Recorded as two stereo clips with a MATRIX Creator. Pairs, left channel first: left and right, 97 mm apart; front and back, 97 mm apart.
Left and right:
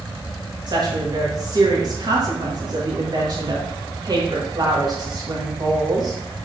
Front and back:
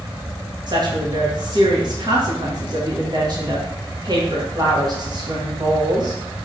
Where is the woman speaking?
135° right, 1.6 m.